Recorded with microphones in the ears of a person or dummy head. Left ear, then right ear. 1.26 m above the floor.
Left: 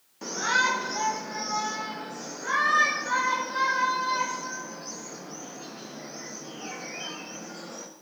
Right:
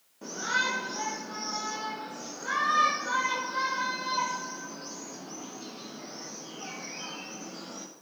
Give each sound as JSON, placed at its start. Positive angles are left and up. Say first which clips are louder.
{"t": 0.2, "sound": "a shout", "louder": "left 5 dB", "side_deg": 40, "distance_m": 1.4}